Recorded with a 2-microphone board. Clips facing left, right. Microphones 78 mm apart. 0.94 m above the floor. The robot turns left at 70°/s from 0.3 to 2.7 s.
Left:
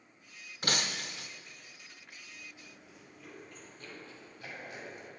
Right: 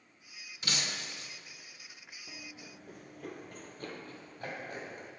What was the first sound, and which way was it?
Breaking glass, 130° left.